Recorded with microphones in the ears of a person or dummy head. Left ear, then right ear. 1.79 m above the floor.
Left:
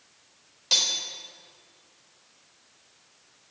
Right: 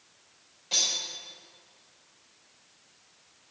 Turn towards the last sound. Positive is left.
turn(degrees=50)  # may be behind; listen again after turning